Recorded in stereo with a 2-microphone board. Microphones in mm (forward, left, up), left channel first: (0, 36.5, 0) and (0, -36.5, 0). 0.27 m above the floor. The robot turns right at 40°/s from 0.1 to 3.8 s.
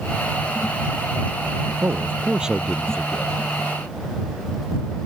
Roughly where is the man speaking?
Ahead right.